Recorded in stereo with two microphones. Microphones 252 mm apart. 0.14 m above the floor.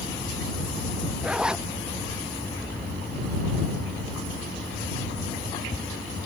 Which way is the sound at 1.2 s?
5° right (ahead or behind).